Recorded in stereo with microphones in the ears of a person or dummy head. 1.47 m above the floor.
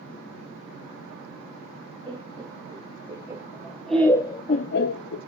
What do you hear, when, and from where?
2.1 s laughter: 30° right (ahead or behind), 1.8 m; by 5.2 s 70° left (ahead or behind), 0.7 m